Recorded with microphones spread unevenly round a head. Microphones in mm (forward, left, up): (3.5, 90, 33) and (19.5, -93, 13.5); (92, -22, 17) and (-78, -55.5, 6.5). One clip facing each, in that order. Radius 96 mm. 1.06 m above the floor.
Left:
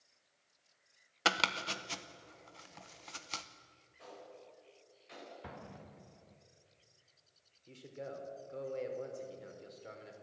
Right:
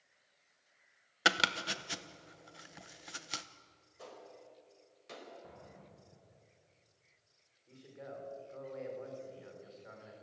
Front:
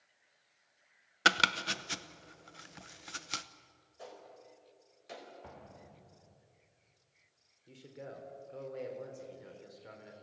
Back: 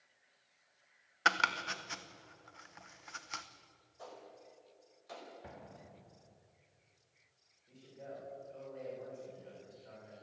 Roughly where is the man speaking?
Ahead left.